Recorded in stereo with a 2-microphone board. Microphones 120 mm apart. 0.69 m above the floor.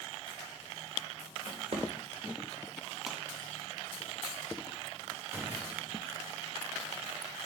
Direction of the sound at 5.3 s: 20° right (ahead or behind).